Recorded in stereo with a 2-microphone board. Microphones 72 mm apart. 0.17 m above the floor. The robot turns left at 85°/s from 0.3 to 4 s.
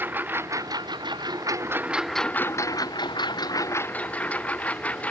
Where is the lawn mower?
30° right; by 5.1 s 20° left.